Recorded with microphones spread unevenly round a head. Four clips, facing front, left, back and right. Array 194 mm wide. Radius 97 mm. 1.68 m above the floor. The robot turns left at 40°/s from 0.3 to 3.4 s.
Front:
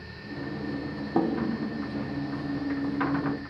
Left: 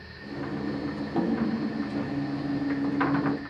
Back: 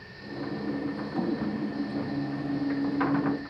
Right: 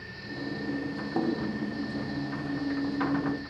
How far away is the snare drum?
About 4.5 m.